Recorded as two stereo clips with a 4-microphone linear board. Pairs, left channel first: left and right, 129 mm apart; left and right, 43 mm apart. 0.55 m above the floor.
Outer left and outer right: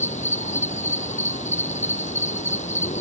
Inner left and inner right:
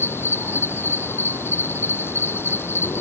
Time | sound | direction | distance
0.0 | an insect | 65° left (ahead or behind) | ?